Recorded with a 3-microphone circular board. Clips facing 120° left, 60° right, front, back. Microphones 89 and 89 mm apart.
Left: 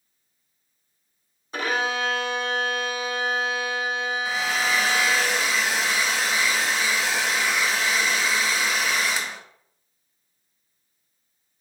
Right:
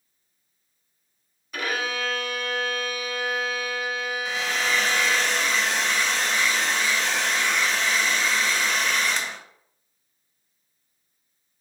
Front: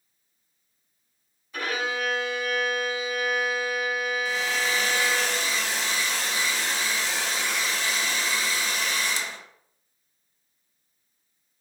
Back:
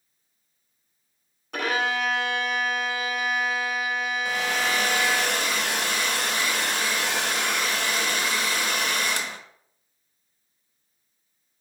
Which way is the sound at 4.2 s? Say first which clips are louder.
Left 1 dB, back 1 dB; 160° right.